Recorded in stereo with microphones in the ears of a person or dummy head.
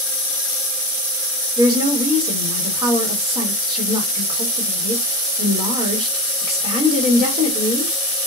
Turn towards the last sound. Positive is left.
turn(degrees=-30)  # may be behind; listen again after turning